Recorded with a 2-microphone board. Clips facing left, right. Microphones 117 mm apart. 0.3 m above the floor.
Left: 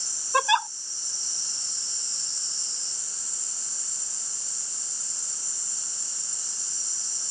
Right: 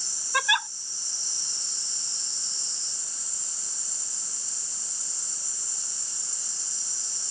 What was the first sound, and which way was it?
A giggle, 30° left (ahead or behind).